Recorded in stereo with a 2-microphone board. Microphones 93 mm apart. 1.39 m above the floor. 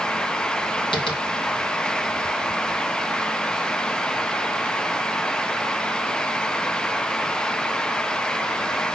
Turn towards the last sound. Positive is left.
turn(degrees=70)  # may be behind; listen again after turning